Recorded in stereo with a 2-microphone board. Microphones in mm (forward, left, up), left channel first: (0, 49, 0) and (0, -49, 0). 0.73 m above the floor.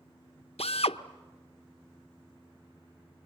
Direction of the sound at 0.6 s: 90° left.